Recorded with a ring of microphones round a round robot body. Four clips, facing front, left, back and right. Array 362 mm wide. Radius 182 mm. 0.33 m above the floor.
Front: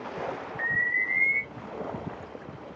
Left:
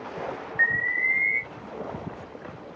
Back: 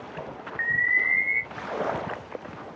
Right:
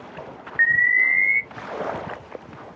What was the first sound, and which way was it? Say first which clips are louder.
An alarm: right 7 dB, back 5 dB; 150° right.